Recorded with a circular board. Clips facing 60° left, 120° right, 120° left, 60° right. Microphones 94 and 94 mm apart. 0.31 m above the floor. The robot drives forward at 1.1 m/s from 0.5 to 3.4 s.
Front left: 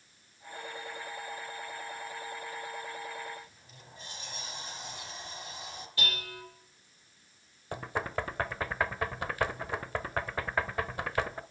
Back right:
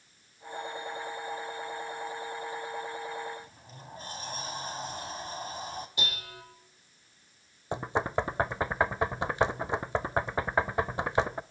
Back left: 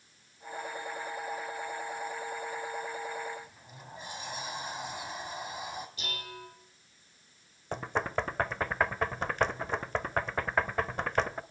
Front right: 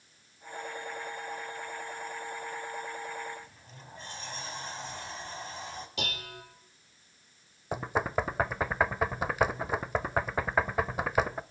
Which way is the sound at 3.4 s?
160° right.